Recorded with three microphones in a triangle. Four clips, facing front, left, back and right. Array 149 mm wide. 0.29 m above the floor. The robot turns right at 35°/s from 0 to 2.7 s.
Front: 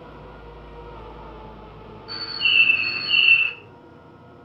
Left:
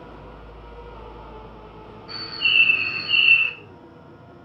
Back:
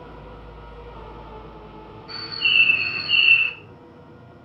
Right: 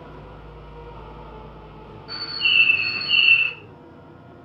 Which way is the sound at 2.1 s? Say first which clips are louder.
Even, even; 30° right.